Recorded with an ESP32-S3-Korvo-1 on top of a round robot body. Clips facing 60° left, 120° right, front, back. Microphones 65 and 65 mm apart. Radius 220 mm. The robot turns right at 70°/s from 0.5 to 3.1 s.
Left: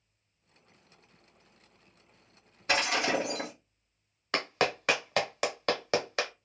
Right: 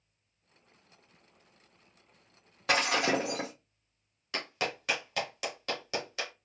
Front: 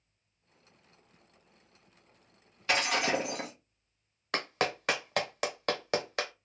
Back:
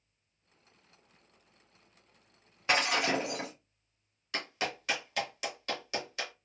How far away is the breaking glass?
About 0.7 m.